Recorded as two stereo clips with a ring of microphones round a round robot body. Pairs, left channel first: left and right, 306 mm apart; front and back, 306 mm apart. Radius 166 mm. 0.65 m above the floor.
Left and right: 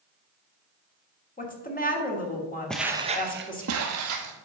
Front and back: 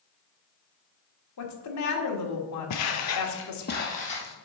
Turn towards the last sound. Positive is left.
turn(degrees=-75)